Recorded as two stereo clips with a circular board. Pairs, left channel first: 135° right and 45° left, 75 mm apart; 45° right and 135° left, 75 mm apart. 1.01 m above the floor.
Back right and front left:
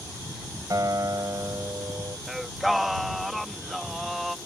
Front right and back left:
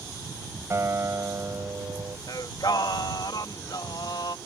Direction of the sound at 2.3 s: 45° right.